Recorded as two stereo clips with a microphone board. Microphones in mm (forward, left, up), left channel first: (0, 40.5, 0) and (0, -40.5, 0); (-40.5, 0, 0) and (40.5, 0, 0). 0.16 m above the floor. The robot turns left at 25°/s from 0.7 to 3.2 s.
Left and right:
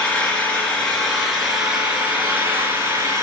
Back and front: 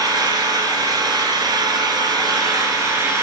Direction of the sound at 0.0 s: 15° left.